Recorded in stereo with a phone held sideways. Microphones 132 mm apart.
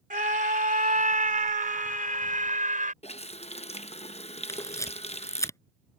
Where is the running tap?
50° left (ahead or behind).